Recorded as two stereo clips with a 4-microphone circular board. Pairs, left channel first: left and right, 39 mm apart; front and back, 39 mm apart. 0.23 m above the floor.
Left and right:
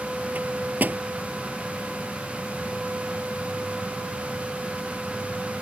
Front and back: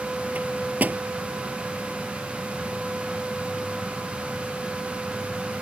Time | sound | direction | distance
0.3 | a microwave | 135° right | ?